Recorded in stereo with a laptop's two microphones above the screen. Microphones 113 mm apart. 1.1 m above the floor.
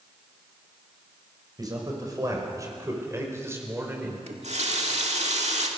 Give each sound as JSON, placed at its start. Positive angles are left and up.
{"t": 1.6, "sound": "a man speaking", "side_deg": -35, "distance_m": 6.0}
{"t": 4.3, "sound": "a running tap", "side_deg": -80, "distance_m": 1.9}